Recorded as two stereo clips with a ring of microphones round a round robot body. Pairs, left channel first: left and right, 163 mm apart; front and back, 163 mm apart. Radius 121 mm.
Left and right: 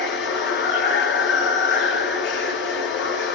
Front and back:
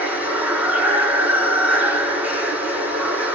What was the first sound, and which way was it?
Running water, 100° left.